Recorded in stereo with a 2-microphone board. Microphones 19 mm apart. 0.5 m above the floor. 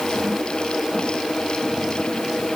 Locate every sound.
Only background noise.